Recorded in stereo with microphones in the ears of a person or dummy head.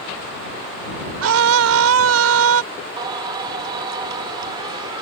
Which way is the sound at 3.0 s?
20° right (ahead or behind).